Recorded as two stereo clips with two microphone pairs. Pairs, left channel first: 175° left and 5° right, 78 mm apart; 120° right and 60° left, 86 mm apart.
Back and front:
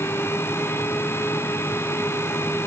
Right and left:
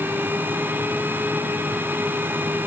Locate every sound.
Only background noise.